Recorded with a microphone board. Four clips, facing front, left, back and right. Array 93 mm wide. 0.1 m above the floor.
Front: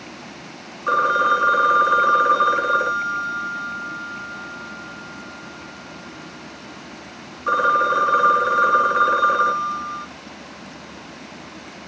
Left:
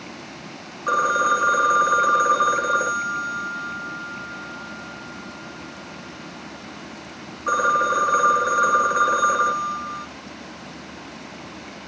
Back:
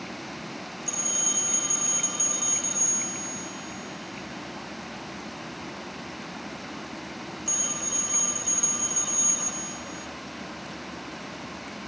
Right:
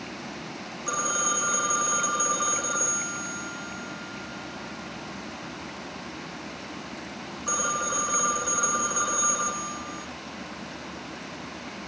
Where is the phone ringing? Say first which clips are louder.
Left 10 dB, front 25 dB; 30° left.